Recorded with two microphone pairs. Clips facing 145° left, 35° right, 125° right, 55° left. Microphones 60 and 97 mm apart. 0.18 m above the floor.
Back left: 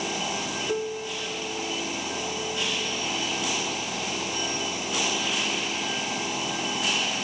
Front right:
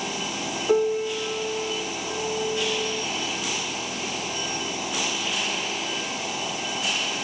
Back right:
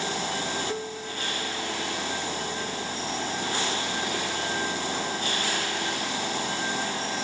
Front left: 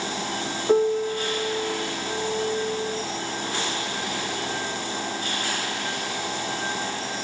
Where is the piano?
15° left.